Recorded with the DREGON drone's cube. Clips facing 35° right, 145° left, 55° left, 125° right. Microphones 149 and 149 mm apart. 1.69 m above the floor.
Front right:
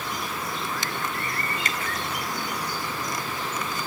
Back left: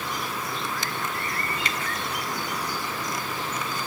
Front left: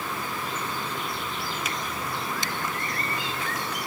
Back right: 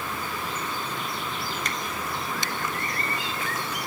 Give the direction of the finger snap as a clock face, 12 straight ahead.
1 o'clock.